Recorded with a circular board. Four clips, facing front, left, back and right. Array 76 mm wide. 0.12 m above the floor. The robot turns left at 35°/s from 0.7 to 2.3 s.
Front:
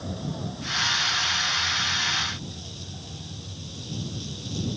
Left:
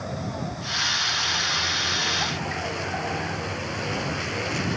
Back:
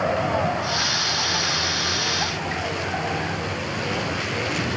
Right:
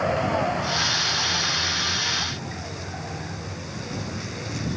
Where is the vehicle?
145° right; by 4.8 s 155° left.